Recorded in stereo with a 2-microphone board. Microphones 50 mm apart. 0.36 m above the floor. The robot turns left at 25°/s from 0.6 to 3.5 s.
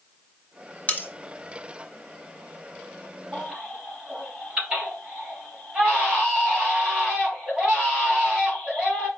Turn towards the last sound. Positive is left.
turn(degrees=-25)  # may be behind; listen again after turning